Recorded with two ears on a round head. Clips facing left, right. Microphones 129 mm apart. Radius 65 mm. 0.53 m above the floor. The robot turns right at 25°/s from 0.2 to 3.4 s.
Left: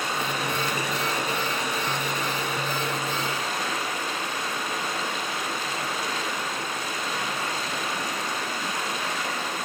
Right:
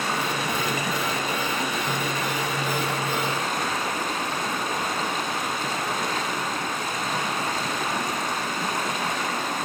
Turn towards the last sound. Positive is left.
turn(degrees=-40)